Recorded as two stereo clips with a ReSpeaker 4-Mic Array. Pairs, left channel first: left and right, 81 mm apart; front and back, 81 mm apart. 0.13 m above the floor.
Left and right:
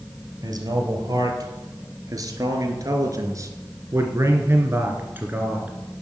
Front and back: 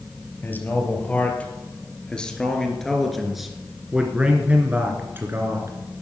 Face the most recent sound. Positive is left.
turn(degrees=-150)